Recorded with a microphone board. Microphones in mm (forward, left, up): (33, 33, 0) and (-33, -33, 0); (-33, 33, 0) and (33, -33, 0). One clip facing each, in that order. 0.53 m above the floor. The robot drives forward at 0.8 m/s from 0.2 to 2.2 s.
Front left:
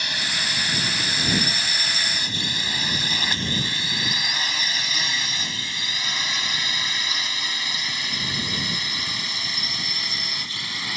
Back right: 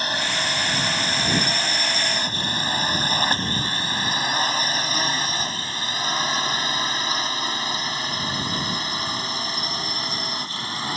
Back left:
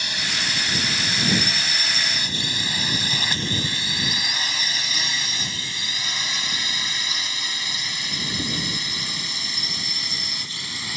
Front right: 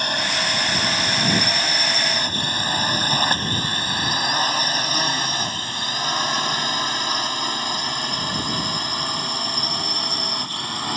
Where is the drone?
85° right; by 11.0 s 80° right.